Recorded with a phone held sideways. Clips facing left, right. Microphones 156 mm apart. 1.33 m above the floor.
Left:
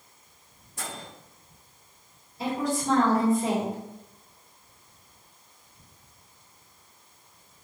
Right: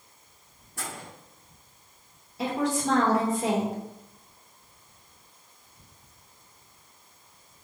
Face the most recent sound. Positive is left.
turn(degrees=-85)